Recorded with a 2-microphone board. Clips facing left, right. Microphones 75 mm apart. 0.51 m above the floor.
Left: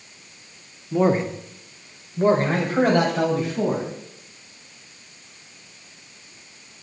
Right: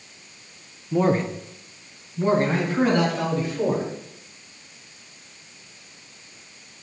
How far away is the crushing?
No crushing in this recording.